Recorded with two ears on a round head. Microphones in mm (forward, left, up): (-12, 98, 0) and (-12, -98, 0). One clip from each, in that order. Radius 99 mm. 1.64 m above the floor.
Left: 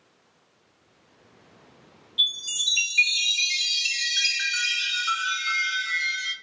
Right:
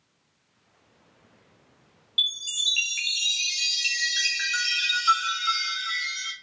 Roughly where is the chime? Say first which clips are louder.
Left 1 dB; right.